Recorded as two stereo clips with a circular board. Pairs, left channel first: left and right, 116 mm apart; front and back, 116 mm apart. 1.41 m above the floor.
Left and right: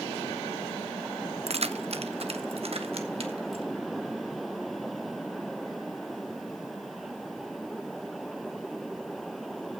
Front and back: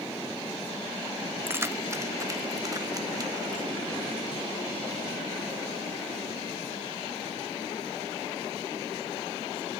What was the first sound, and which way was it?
Keys jangling, 110° right.